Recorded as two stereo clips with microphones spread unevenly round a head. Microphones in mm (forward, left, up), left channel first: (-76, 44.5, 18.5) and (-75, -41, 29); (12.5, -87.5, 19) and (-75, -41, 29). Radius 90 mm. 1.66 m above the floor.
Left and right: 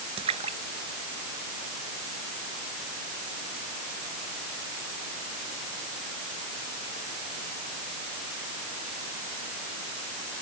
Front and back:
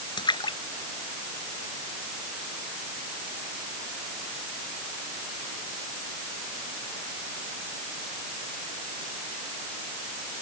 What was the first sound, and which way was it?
A splash, 70° right.